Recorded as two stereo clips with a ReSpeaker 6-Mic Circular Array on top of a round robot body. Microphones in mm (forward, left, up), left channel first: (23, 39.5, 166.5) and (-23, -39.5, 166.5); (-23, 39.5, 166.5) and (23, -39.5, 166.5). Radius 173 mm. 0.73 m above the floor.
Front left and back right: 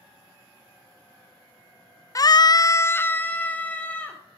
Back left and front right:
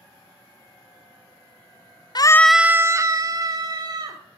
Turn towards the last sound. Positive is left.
turn(degrees=-20)